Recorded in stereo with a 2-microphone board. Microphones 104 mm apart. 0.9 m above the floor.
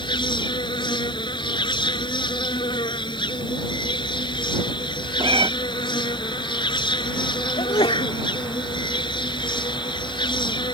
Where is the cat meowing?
55° right (ahead or behind).